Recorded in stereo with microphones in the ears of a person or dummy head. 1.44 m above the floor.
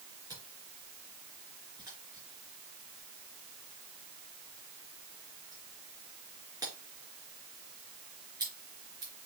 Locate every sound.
0.3 s a camera shutter: 20° right (ahead or behind), 4 m